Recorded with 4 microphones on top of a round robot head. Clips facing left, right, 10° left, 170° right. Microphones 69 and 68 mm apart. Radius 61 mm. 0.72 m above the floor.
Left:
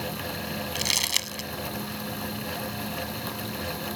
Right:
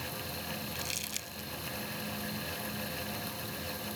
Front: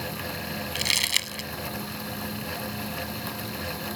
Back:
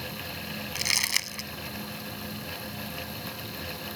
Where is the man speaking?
I don't hear a man speaking.